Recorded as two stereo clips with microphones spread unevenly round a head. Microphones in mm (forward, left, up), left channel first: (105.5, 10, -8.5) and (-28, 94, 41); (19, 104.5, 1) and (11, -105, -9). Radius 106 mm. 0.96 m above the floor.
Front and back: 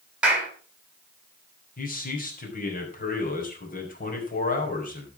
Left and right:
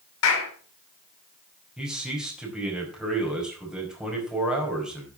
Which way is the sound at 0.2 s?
65° left.